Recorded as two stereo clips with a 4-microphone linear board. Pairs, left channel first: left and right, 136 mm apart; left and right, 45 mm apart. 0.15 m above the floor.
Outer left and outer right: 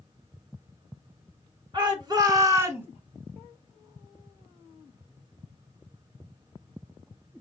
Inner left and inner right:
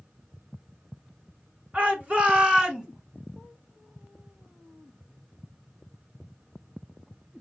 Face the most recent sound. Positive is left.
turn(degrees=-15)  # may be behind; listen again after turning